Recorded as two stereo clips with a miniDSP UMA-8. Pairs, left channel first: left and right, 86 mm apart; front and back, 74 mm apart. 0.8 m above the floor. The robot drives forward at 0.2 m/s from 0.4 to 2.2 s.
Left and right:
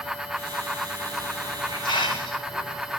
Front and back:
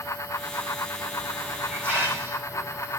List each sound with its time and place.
1.1 s a hiss: 115° left, 5 m; by 3.0 s 120° left, 5 m